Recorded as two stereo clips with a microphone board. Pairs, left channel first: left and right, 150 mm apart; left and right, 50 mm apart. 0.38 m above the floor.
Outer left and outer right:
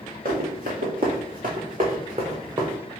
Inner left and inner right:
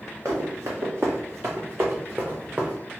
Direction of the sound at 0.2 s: 75° right (ahead or behind).